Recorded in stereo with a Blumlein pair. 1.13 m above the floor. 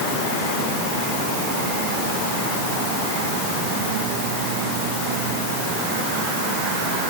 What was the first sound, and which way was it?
Only background noise.